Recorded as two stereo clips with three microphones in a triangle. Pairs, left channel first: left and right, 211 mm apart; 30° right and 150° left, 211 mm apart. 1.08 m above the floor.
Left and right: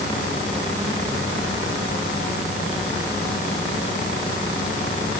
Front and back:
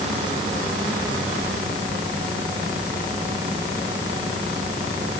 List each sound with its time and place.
Only background noise.